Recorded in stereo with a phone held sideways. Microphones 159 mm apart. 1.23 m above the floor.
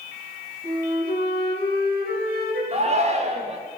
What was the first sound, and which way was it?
A flute, 75° right (ahead or behind).